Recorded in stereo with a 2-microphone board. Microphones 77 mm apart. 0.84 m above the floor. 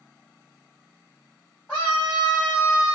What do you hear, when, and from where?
1.7 s a scream: 15° left (ahead or behind), 1.5 m; by 3.0 s 20° right (ahead or behind), 1.2 m